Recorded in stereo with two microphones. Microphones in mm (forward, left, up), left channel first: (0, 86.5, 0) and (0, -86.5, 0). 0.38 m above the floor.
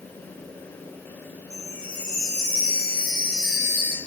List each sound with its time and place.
1.5 s a chime: 65° left (ahead or behind), 5 m